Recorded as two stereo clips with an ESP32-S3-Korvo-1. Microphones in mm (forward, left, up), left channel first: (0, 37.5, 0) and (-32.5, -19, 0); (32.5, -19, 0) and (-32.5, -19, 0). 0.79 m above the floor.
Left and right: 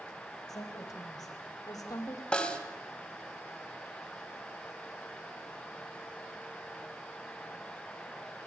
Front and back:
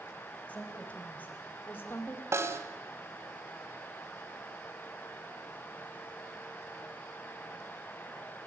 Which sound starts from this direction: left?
A woman speaking, at 0.5 s.